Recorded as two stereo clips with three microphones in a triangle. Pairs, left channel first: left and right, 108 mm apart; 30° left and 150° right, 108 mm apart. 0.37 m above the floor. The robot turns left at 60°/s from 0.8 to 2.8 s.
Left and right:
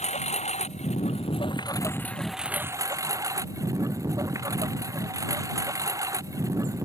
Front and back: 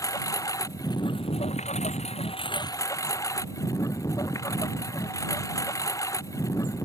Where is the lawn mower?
90° left; by 6.9 s 30° right.